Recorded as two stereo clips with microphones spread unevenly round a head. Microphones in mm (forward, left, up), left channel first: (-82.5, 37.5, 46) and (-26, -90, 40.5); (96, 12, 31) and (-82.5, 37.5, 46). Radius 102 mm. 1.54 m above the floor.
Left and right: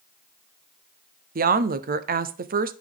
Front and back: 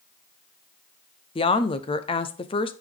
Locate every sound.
1.4 s a woman speaking: 70° right, 0.8 m